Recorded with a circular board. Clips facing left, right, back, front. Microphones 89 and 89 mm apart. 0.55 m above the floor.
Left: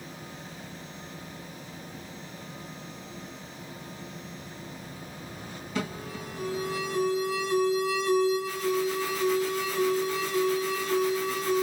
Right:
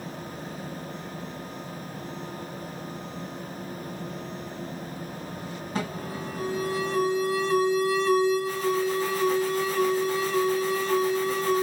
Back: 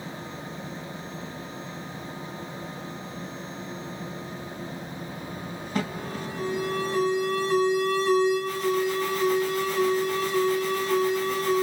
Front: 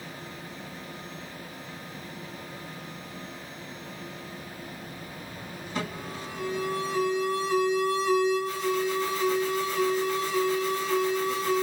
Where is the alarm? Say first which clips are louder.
Right 1 dB, back 4 dB; 130° right, 2.5 m.